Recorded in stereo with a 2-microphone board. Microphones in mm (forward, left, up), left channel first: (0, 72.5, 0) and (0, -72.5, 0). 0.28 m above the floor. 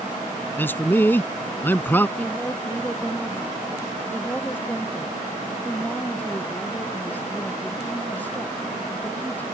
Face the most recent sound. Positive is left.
turn(degrees=10)  # may be behind; listen again after turning